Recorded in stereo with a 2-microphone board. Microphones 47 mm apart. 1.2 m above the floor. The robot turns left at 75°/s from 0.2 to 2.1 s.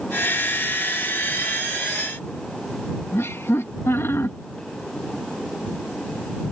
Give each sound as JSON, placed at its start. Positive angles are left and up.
{"t": 3.1, "sound": "laughter", "side_deg": 65}